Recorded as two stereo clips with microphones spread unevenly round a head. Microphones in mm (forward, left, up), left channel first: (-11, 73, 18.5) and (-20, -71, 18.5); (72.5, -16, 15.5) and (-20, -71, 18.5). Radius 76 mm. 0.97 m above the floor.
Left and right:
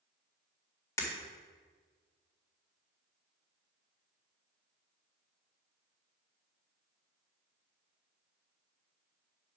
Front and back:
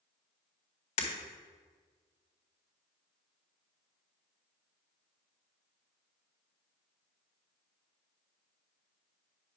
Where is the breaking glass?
15° left, 1.9 m.